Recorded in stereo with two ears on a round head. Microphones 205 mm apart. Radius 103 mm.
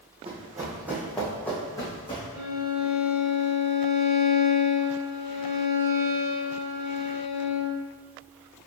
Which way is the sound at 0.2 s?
25° right (ahead or behind).